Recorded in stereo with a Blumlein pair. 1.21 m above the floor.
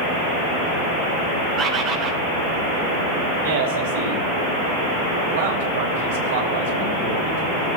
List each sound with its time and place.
1.6 s a bird: 30° right, 1.3 m
3.4 s a man speaking: 55° right, 3 m